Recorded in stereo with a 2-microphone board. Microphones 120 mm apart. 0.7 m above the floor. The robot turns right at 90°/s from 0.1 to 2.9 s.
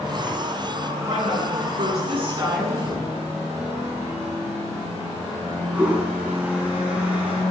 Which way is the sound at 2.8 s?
15° right (ahead or behind).